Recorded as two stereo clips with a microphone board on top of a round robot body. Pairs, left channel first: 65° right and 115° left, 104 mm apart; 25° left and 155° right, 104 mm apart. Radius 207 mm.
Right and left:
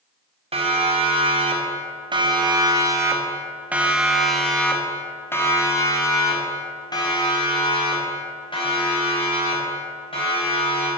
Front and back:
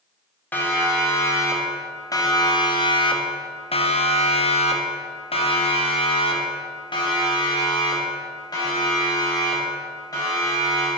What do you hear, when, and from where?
0.5 s a siren: 95° left, 3 m; by 10.9 s 35° right, 6 m